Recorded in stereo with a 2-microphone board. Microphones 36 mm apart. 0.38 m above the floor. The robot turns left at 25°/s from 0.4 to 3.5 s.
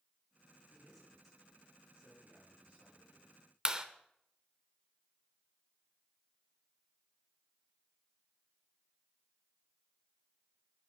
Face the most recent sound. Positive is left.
turn(degrees=-20)  # may be behind; listen again after turning